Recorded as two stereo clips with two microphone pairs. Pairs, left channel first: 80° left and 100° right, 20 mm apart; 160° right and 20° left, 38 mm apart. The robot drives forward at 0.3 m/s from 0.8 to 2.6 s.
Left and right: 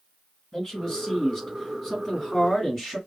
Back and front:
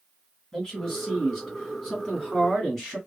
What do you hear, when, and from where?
0.5 s a man speaking: 125° left, 1.9 m; by 3.0 s 145° left, 2 m